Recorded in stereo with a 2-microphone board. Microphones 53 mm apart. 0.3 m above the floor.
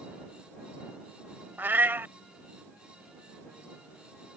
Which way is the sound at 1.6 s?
40° right (ahead or behind).